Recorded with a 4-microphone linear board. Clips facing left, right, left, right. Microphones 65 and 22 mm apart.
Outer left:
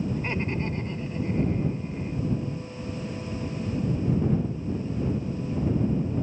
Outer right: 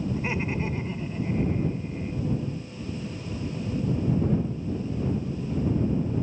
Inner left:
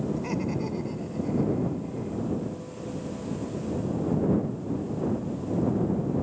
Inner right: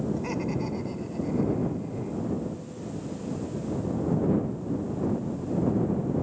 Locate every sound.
0.1 s laughter: 5° right (ahead or behind)